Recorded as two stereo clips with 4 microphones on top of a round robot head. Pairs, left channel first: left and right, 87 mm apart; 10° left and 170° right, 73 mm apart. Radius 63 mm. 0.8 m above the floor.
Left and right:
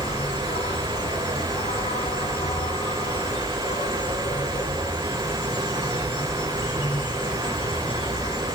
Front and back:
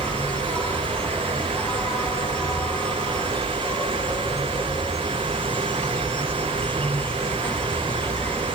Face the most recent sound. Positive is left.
turn(degrees=80)